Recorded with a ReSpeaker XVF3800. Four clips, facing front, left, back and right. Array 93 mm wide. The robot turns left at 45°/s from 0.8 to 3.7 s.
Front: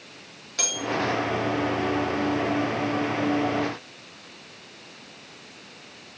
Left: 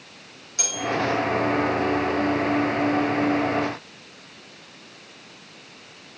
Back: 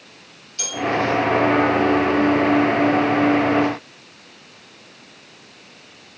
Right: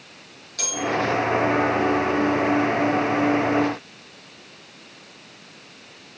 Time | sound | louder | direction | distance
0.6 | a bell | right 2 dB, back 4 dB | 15° left | 1.2 m